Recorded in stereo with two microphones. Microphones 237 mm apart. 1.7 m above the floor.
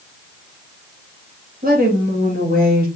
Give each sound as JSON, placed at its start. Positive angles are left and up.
{"t": 1.6, "sound": "a woman speaking", "side_deg": -40, "distance_m": 2.5}